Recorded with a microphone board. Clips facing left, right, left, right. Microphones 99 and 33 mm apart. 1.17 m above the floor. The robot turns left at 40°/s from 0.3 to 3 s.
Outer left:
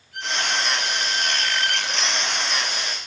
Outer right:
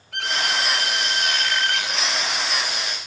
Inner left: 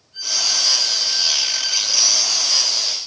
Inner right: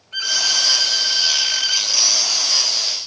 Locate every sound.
0.1 s a violin: 85° right, 5 m; by 1.9 s 150° right, 5 m